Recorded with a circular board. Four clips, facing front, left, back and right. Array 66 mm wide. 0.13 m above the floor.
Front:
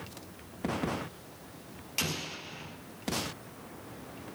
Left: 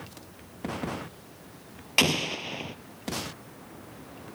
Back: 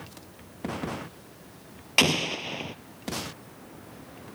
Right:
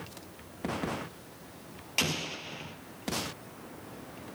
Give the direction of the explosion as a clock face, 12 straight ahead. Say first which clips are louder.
Left 7 dB, back 12 dB; 7 o'clock.